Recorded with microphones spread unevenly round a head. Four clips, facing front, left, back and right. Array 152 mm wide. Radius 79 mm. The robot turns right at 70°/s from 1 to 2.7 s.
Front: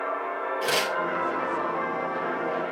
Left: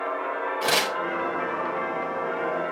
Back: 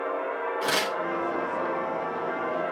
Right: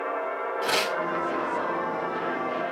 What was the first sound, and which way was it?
Tearing paper, 95° left.